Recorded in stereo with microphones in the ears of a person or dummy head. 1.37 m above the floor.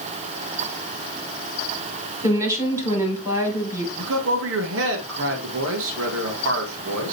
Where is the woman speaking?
10° right (ahead or behind), 3.5 m.